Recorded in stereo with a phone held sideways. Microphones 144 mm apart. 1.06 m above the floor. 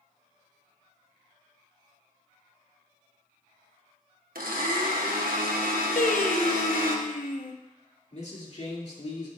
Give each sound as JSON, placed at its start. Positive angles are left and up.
{"t": 4.3, "sound": "a blender", "side_deg": -80, "distance_m": 1.2}
{"t": 6.0, "sound": "singing", "side_deg": 60, "distance_m": 0.8}
{"t": 8.1, "sound": "a man speaking", "side_deg": 50, "distance_m": 2.5}